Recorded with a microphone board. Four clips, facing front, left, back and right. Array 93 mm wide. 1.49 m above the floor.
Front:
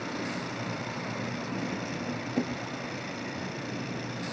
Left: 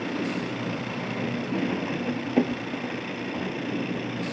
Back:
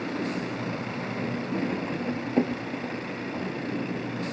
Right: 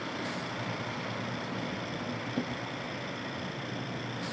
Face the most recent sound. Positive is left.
turn(degrees=125)